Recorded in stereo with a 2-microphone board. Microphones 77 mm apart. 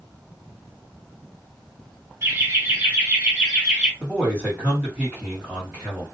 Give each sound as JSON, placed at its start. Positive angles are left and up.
{"t": 2.2, "sound": "laughter", "side_deg": -30, "distance_m": 1.2}
{"t": 4.0, "sound": "a man speaking", "side_deg": -15, "distance_m": 1.8}